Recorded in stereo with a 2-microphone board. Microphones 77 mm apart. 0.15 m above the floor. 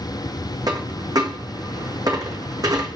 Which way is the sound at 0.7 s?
55° right (ahead or behind).